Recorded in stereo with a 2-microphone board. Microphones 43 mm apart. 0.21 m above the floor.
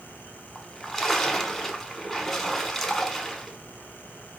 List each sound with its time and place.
0.6 s a splash: 5° left (ahead or behind), 0.7 m